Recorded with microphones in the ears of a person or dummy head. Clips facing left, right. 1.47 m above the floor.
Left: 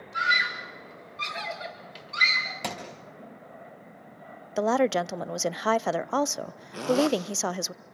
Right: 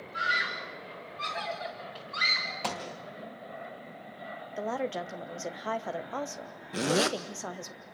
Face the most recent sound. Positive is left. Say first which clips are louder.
# left 4 dB
turn(degrees=-20)  # may be behind; listen again after turning